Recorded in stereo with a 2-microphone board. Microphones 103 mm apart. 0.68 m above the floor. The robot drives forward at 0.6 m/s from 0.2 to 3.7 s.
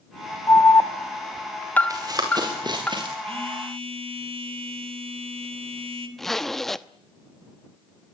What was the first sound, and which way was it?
An alarm, 25° left (ahead or behind).